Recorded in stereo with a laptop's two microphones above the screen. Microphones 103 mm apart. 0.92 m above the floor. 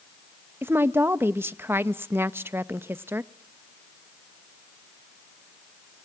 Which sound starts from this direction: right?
A woman speaking, at 0.6 s.